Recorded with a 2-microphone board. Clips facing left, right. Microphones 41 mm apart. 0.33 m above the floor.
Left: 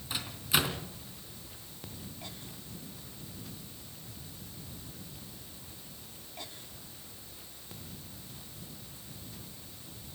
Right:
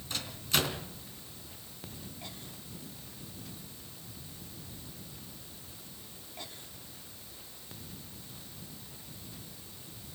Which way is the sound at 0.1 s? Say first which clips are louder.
Left 1 dB; 15° left (ahead or behind).